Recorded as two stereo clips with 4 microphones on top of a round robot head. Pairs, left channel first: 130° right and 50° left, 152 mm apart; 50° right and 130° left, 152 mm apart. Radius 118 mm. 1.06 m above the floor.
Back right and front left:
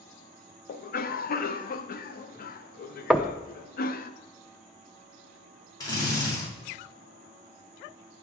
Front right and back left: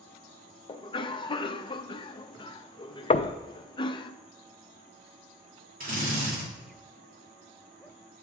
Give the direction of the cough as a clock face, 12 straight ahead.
4 o'clock.